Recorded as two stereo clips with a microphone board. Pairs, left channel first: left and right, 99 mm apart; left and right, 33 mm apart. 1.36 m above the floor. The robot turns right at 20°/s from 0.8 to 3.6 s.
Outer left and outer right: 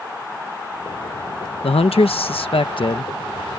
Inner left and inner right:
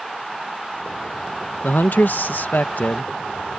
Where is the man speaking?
95° left; by 3.5 s 130° left.